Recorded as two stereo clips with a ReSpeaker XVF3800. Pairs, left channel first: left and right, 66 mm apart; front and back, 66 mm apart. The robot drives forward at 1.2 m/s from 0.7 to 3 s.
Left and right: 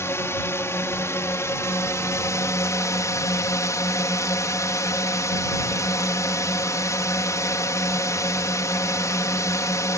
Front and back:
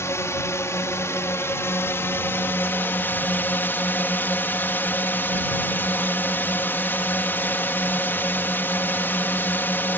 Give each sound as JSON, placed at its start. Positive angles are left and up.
{"t": 0.0, "sound": "a drone", "azimuth_deg": 45}